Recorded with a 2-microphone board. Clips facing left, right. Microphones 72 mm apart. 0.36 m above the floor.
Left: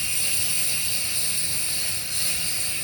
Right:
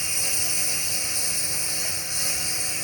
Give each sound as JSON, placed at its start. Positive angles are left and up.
{"t": 0.0, "sound": "a lawn mower", "side_deg": -20}